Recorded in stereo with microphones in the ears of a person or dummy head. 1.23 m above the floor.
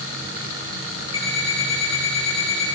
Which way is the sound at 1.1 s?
30° left (ahead or behind).